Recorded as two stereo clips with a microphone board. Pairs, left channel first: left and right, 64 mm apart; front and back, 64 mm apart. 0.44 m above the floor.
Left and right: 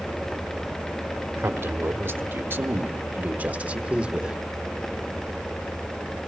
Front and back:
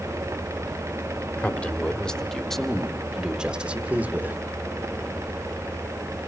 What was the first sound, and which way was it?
A man speaking, 55° right.